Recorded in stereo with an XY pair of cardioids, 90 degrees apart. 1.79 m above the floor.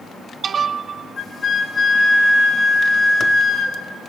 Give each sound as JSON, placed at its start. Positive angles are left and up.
{"t": 1.2, "sound": "a flute", "azimuth_deg": 45, "distance_m": 5.5}